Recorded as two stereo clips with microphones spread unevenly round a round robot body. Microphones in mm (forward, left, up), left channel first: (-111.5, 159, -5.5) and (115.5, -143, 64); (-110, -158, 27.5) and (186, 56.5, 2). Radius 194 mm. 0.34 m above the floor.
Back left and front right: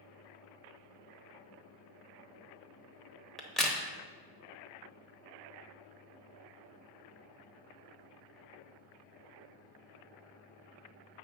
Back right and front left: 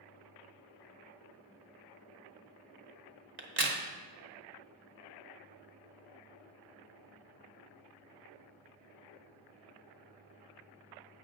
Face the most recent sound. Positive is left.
turn(degrees=55)